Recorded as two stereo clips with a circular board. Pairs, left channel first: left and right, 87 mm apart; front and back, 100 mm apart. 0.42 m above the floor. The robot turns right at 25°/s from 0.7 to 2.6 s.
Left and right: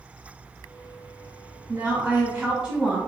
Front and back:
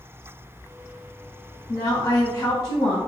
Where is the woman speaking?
40° right, 1.1 m; by 3.0 s 15° right, 1.1 m.